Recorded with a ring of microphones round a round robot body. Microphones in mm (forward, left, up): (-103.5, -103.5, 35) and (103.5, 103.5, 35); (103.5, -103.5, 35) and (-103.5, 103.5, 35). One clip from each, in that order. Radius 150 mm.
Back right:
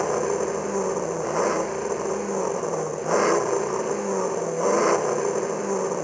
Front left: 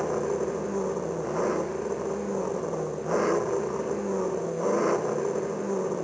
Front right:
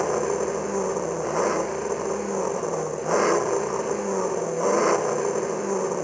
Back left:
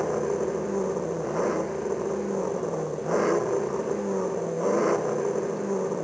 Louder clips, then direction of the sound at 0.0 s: Back right 4 dB, front right 2 dB; 85° right.